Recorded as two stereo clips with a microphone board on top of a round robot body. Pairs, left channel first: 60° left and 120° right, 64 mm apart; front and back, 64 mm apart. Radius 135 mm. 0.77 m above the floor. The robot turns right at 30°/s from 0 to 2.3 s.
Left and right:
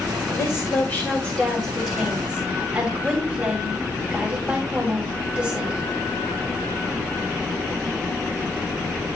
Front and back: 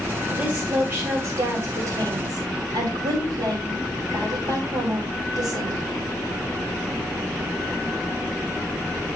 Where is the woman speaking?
105° left, 5.5 m; by 5.9 s 165° left, 5.5 m.